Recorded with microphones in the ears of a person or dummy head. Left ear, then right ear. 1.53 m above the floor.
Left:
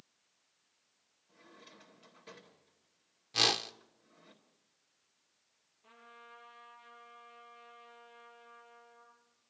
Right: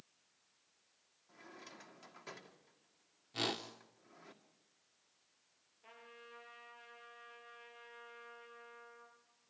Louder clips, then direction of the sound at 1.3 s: Right 2 dB; 40° right (ahead or behind).